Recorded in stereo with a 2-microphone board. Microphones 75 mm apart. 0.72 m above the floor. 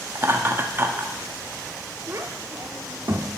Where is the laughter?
30° right (ahead or behind), 1.0 m.